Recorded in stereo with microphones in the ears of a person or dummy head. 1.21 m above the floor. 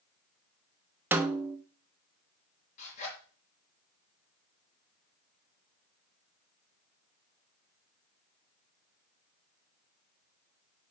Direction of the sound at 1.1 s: 10° right (ahead or behind).